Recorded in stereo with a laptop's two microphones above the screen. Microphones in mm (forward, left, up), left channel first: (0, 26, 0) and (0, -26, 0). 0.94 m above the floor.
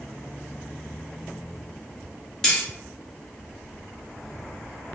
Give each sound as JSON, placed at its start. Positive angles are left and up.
{"t": 2.4, "sound": "cutlery clinking", "side_deg": 10, "distance_m": 0.7}